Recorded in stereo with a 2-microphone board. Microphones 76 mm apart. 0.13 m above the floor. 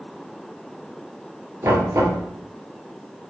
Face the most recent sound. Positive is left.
turn(degrees=-40)  # may be behind; listen again after turning